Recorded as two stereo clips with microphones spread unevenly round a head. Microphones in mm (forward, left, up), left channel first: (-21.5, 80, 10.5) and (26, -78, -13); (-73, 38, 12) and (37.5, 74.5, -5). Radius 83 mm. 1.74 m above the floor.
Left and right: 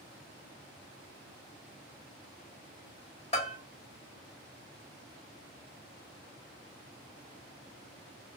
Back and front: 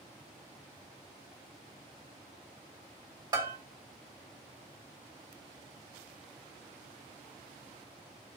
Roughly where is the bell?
Left.